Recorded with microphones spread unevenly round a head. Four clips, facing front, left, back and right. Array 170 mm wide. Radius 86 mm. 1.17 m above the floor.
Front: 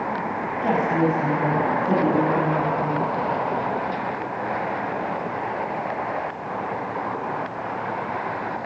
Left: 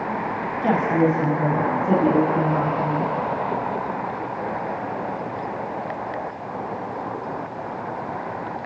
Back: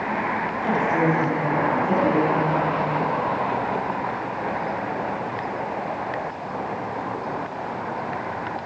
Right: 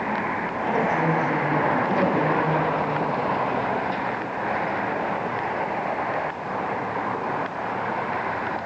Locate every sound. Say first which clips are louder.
0.6 s a woman speaking: left 4 dB, front 1 dB; 80° left, 7 m